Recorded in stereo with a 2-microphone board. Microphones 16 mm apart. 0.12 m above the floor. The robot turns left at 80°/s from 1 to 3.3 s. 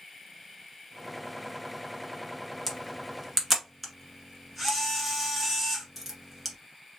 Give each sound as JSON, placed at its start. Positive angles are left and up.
{"t": 2.7, "sound": "a camera shutter", "side_deg": 20, "distance_m": 1.4}